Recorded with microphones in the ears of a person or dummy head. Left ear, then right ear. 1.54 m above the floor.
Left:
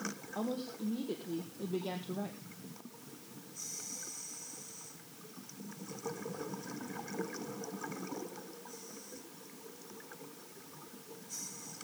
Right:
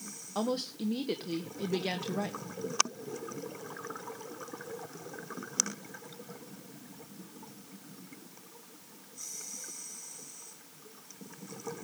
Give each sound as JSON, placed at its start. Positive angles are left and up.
{"t": 0.3, "sound": "a woman speaking", "side_deg": -65, "distance_m": 1.1}